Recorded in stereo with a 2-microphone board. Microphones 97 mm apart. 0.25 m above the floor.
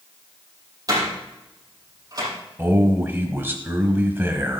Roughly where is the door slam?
Right.